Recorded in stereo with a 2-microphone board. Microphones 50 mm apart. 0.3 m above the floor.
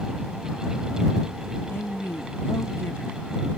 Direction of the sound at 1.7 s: 50° left (ahead or behind).